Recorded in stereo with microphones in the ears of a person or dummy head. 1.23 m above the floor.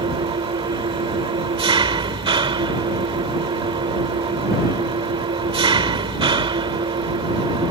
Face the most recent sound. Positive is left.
turn(degrees=-25)  # may be behind; listen again after turning